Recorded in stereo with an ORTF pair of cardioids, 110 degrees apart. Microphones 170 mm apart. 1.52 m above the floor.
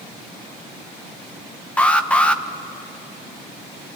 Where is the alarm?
10° left, 1.2 m.